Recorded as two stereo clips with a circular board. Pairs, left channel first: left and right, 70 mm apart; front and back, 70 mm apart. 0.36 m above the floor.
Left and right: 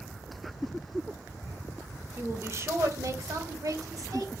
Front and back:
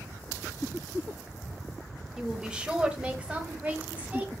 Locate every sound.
2.2 s a woman speaking: 110° right, 1.0 m; by 4.3 s 115° right, 2 m